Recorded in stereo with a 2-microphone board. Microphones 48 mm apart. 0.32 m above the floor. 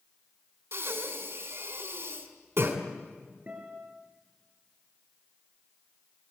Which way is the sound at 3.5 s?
30° right (ahead or behind).